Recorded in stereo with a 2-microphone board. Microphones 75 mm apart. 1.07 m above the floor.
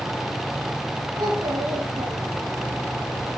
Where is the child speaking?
80° right, 5.5 m.